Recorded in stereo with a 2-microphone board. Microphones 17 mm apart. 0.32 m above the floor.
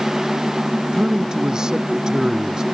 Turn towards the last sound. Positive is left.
turn(degrees=-40)  # may be behind; listen again after turning